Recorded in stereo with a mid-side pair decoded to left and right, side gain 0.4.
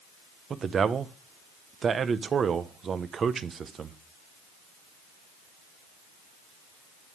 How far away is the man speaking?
About 0.8 m.